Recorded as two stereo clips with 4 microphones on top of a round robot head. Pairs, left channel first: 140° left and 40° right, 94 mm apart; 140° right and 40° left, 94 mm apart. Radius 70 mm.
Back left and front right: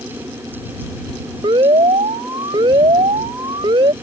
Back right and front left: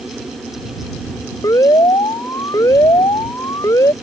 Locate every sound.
1.4 s an alarm: 80° right